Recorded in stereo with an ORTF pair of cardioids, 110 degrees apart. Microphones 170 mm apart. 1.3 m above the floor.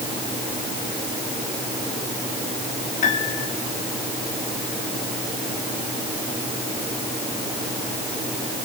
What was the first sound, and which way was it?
A piano, 45° left.